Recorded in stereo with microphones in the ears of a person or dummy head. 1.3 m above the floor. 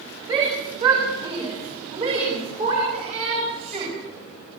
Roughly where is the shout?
Right.